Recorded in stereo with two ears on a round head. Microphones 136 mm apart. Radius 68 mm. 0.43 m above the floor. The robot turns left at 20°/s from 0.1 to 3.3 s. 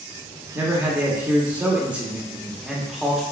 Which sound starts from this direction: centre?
A man speaking, at 0.6 s.